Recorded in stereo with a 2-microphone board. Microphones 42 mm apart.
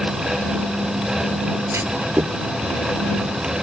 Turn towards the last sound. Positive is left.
turn(degrees=-75)  # may be behind; listen again after turning